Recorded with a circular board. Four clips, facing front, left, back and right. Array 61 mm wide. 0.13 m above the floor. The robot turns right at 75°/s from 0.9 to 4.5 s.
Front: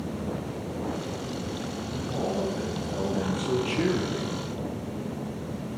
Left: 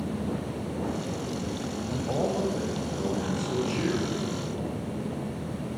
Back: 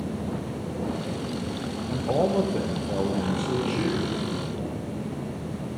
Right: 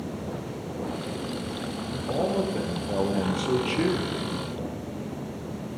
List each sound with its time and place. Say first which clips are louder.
1.9 s a man speaking: right 2 dB, back 7 dB; 160° left, 2.5 m; by 4.3 s 15° right, 2.5 m